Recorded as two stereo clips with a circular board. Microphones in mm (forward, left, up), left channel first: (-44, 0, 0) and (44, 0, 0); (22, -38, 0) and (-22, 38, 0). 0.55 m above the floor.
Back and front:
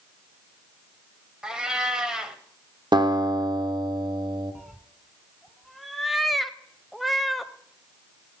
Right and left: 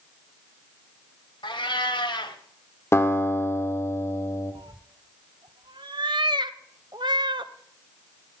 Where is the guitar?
10° right, 1.1 m.